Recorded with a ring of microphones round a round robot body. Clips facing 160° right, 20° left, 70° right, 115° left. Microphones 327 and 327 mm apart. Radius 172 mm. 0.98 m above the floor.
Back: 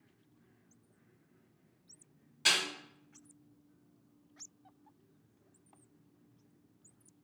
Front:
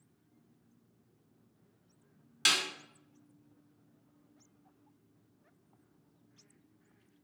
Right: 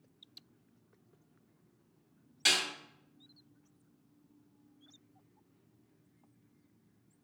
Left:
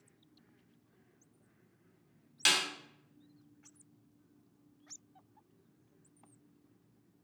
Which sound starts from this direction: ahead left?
A snare drum, at 2.5 s.